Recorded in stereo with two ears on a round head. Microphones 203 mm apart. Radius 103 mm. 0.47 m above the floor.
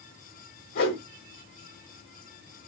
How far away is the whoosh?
About 1.3 m.